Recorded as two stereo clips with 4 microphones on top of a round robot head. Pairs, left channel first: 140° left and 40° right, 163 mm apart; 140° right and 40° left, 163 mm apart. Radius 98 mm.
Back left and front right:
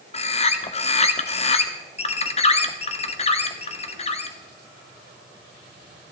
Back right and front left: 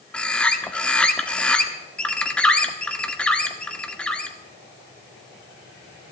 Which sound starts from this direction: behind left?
A bird, at 0.1 s.